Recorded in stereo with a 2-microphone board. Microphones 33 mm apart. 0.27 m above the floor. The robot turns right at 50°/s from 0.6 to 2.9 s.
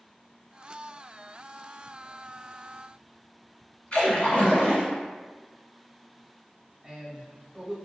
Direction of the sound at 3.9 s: 45° left (ahead or behind).